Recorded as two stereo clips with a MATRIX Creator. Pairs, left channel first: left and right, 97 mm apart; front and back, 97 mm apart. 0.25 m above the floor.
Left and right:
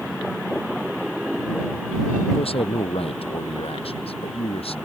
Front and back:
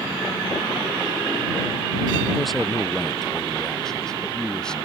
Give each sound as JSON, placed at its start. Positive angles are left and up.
{"t": 2.3, "sound": "a man speaking", "azimuth_deg": 90}